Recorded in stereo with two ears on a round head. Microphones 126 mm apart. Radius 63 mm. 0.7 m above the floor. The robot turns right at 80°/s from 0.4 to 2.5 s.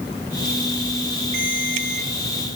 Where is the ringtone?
105° right, 8.5 m; by 2.1 s 50° right, 8.5 m.